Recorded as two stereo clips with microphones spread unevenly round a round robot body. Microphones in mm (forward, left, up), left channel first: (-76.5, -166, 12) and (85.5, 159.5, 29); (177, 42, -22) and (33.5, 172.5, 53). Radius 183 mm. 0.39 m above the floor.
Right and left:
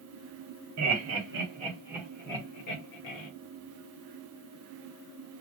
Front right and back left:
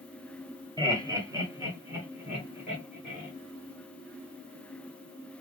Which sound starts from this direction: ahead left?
Laughter, at 0.8 s.